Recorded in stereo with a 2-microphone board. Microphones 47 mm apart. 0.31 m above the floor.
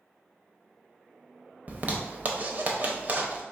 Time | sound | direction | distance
1.7 | a zipper | 40° right (ahead or behind) | 0.6 m